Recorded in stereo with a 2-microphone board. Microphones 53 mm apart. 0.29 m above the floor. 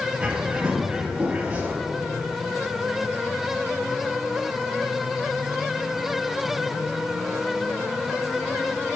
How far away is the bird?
About 0.9 m.